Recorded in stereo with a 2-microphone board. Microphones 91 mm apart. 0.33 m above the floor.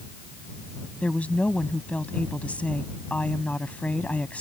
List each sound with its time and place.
1.0 s a woman speaking: 15° left (ahead or behind)